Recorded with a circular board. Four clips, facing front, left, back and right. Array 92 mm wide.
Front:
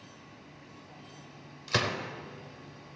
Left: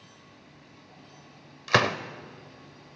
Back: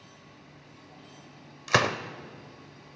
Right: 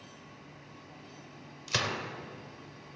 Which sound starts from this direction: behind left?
A gunshot, at 1.7 s.